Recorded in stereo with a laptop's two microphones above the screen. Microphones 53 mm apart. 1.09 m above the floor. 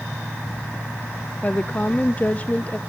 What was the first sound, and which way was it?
A woman speaking, 30° left (ahead or behind).